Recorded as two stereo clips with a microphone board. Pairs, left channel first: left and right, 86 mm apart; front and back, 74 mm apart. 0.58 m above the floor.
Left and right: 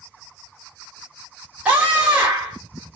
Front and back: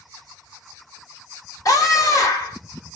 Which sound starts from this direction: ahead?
A scream, at 1.6 s.